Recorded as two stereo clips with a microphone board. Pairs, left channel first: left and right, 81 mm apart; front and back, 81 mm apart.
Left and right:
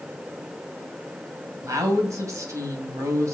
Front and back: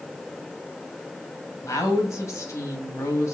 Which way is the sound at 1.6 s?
45° right.